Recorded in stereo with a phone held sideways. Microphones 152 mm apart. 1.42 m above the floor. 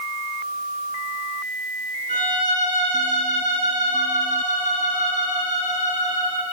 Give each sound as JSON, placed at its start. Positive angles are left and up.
{"t": 2.1, "sound": "a violin", "side_deg": 60, "distance_m": 1.7}